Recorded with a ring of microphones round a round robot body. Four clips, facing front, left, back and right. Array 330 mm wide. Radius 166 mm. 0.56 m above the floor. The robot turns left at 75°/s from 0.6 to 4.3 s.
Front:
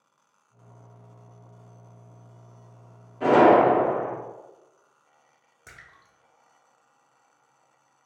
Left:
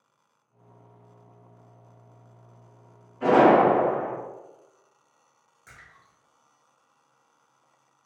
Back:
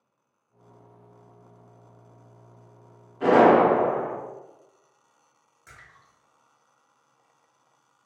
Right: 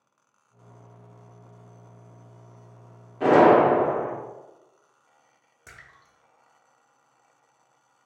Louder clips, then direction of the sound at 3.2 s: Right 1 dB, even; 95° right.